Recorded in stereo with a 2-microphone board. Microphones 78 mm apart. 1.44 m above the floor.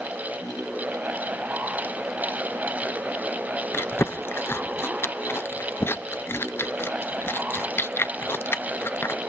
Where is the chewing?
30° left (ahead or behind), 0.6 m.